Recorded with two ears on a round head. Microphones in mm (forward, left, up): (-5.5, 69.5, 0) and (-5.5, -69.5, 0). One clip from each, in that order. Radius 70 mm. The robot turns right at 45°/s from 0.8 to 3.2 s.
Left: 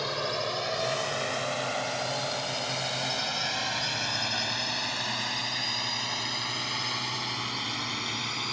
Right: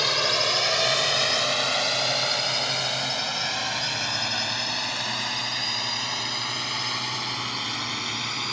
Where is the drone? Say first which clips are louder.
Right 8 dB; 60° right (ahead or behind); by 8.5 s 10° right (ahead or behind).